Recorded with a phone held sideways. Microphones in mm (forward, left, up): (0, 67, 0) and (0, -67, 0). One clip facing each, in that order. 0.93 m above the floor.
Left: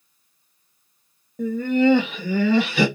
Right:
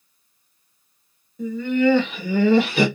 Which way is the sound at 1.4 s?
60° left (ahead or behind).